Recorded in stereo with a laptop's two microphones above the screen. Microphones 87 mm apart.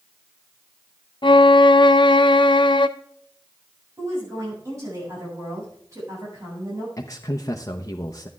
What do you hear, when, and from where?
1.2 s a violin: 70° left (ahead or behind), 0.6 m
4.0 s a woman speaking: 35° right (ahead or behind), 7 m
7.0 s a man speaking: 40° left (ahead or behind), 0.8 m